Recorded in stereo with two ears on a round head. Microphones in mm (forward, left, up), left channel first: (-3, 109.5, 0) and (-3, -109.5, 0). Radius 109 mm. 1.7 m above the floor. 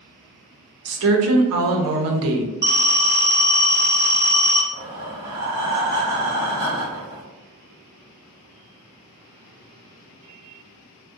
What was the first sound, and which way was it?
A woman speaking, 60° right (ahead or behind).